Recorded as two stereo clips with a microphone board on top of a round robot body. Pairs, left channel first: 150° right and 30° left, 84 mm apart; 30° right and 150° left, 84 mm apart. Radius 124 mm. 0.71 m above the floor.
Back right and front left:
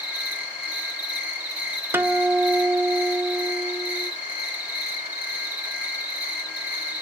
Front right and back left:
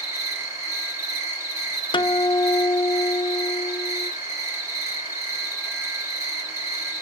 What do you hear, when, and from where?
0.0 s an insect: 100° left, 3 m
1.9 s a guitar: 30° right, 0.7 m